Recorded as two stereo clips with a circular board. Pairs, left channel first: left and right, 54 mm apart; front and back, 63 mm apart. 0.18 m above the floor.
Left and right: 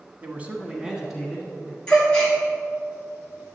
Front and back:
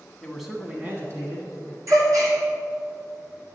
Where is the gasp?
170° left, 1.9 m.